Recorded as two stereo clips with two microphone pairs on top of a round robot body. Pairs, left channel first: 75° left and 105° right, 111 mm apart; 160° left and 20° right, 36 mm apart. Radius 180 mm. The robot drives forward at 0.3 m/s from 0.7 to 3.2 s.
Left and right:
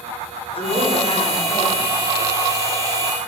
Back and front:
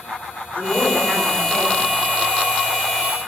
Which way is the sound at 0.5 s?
110° left.